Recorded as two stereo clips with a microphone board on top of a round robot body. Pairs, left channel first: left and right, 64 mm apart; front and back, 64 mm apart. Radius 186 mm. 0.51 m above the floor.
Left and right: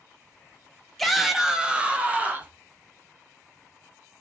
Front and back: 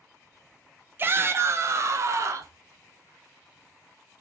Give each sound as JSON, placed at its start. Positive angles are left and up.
{"t": 1.0, "sound": "a shout", "azimuth_deg": 175, "distance_m": 1.4}